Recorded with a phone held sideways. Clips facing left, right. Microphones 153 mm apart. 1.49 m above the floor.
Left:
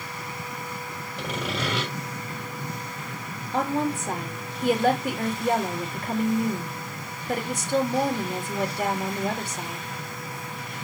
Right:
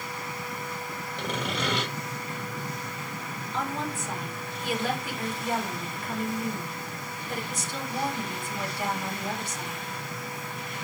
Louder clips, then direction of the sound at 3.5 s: Left 7 dB; 65° left (ahead or behind).